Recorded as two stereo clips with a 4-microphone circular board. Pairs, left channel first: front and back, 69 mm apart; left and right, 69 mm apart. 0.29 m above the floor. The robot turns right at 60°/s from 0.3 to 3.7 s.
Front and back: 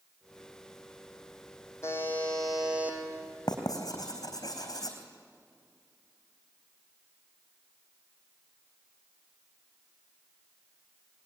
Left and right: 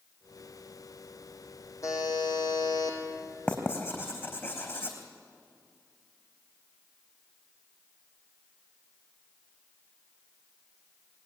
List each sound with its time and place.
1.8 s a buzzer: 50° left, 4.5 m; by 3.0 s 120° left, 4.5 m
3.5 s writing: 20° left, 3.5 m; by 5.0 s 35° left, 3.5 m